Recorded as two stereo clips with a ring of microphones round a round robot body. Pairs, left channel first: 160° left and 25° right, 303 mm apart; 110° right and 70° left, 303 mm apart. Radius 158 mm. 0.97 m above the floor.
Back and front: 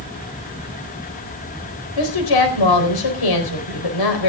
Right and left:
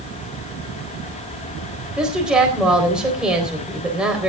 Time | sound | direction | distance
2.0 | a woman speaking | 155° left | 4 m